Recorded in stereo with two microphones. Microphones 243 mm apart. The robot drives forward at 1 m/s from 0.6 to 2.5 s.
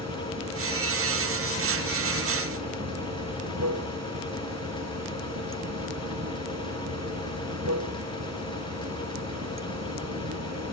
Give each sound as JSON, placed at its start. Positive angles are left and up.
{"t": 0.0, "sound": "running water", "side_deg": -85}